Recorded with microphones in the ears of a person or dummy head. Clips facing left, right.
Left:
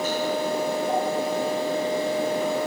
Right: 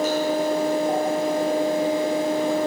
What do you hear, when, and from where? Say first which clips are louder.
0.0 s a fan: right 4 dB; 45° right (ahead or behind), 2 m